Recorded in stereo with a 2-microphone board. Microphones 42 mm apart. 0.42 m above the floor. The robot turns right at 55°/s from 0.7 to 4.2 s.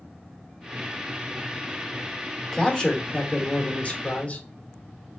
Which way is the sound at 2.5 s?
25° left.